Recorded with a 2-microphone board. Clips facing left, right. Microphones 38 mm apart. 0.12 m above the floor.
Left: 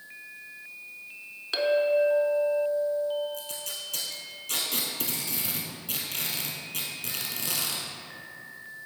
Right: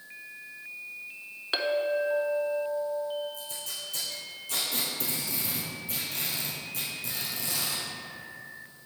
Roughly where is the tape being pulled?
Left.